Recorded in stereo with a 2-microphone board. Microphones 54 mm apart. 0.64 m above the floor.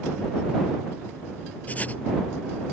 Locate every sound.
1.7 s writing: 25° left (ahead or behind)